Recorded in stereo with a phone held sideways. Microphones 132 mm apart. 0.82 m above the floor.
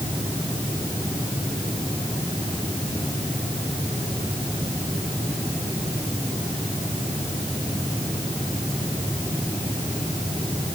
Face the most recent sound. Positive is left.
No sound to turn to.